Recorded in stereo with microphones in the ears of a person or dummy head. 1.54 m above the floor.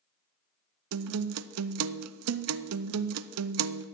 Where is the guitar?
80° right, 0.6 m.